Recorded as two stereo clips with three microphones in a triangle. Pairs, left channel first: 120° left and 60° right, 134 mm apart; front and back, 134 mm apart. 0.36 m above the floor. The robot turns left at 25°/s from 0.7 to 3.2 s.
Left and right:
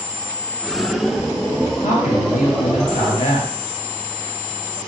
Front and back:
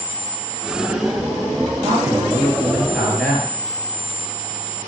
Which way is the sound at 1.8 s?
120° left.